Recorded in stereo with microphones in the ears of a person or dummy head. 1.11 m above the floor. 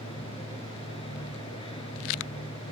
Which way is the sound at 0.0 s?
30° left (ahead or behind).